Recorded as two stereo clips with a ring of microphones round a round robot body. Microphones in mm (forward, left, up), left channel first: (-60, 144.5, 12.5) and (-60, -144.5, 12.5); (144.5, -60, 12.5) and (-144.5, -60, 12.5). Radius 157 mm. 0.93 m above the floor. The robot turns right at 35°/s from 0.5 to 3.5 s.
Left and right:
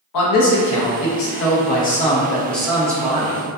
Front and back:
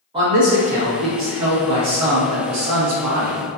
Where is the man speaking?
105° left, 0.8 m; by 3.4 s 155° right, 0.8 m.